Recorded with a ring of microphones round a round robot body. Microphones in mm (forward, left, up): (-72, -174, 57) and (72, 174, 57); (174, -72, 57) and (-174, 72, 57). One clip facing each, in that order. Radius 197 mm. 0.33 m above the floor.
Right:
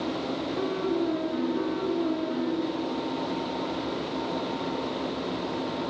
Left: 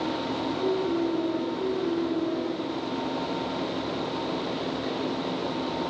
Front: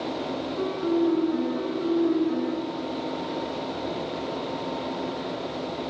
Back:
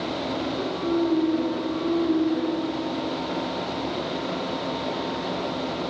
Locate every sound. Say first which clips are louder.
0.6 s a piano: left 2 dB, front 2 dB; 85° right, 3 m